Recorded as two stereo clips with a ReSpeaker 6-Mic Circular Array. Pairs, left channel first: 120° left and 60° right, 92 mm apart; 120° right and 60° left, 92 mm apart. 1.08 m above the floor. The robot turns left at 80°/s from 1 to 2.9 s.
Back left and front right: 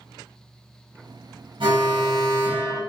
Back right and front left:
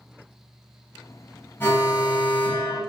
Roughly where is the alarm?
Ahead right.